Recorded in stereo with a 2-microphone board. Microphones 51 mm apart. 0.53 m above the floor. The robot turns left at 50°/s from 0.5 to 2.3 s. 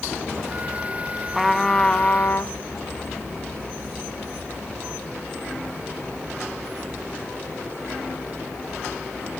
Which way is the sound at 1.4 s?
175° right.